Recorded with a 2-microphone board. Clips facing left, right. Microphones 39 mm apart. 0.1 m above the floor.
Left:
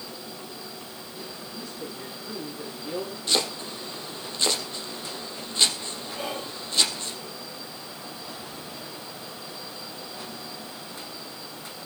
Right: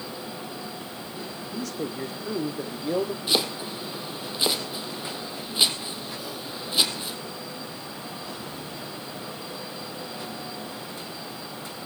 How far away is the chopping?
About 3.5 m.